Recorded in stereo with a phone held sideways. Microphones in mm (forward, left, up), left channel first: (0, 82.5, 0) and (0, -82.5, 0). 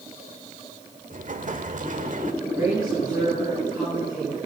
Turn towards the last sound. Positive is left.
turn(degrees=-10)  # may be behind; listen again after turning